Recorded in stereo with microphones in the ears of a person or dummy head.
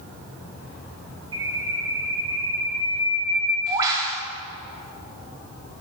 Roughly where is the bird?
Centre.